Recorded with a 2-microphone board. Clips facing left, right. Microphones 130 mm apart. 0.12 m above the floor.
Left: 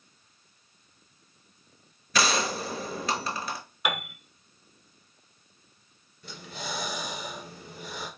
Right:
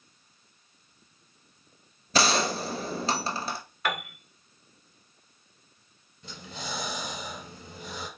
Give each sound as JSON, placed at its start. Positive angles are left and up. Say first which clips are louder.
{"t": 2.1, "sound": "a gunshot", "louder": "right 2 dB", "side_deg": -30, "distance_m": 0.7}
{"t": 3.9, "sound": "a piano", "louder": "even", "side_deg": 15, "distance_m": 0.7}
{"t": 6.2, "sound": "breathing", "louder": "left 1 dB", "side_deg": -20, "distance_m": 1.4}